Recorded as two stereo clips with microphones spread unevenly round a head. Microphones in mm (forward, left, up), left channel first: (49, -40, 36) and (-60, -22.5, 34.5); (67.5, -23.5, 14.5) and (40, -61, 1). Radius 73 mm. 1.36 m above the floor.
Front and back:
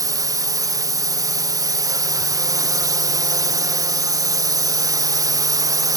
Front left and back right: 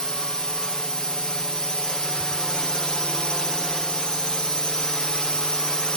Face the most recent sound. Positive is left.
turn(degrees=145)